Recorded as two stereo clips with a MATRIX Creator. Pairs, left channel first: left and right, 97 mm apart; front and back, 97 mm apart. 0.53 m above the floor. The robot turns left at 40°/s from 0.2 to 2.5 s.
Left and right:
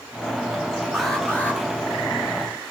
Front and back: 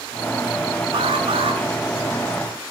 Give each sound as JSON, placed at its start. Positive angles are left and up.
{"t": 0.9, "sound": "an alarm", "azimuth_deg": 180, "distance_m": 7.5}